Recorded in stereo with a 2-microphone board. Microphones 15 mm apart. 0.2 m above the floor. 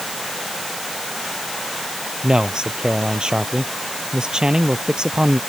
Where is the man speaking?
60° right (ahead or behind).